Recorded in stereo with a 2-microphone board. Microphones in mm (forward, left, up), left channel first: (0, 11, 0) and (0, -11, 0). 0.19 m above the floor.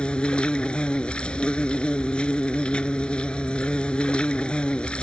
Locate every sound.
0.0 s an insect: 55° left (ahead or behind)